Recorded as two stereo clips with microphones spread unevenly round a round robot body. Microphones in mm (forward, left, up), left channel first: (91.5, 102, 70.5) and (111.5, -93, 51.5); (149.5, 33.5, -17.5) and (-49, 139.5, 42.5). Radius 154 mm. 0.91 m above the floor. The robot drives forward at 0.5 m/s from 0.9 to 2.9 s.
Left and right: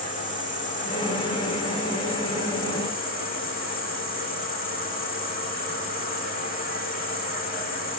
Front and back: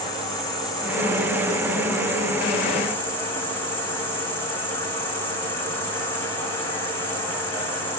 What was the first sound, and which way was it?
An insect, 130° right.